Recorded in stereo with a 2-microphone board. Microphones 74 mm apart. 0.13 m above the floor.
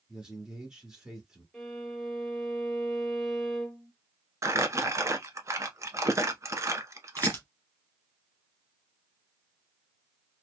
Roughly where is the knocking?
I don't hear knocking.